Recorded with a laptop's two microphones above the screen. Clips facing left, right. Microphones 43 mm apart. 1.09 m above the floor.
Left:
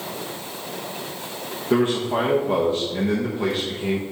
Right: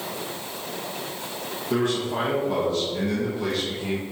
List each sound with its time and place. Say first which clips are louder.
1.7 s a man speaking: left 4 dB; 30° left (ahead or behind), 1.0 m